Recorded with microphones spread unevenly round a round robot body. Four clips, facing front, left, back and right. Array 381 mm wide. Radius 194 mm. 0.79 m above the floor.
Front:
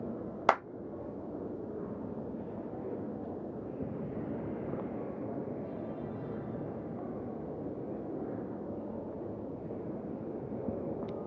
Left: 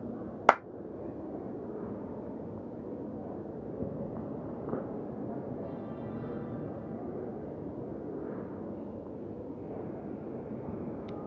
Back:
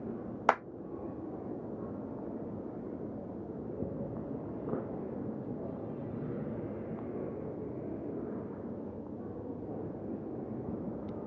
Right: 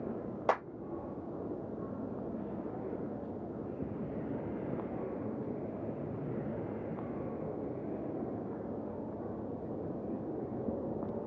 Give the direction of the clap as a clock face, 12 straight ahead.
9 o'clock.